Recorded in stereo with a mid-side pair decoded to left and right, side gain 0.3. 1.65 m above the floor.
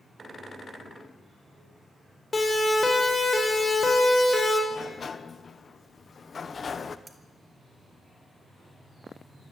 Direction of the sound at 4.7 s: 55° left.